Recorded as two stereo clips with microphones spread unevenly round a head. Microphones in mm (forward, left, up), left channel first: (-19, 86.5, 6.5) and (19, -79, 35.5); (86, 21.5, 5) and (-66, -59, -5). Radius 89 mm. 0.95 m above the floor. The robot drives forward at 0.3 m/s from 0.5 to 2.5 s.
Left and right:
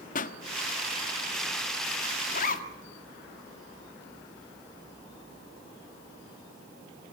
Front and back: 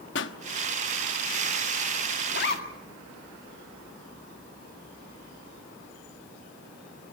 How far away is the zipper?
About 2.0 m.